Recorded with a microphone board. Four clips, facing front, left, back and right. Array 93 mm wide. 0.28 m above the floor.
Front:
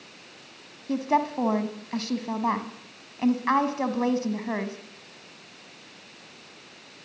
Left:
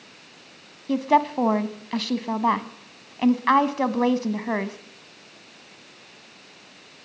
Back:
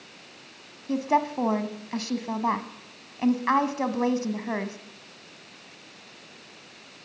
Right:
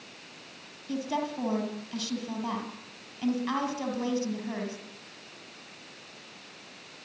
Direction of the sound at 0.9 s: 95° left.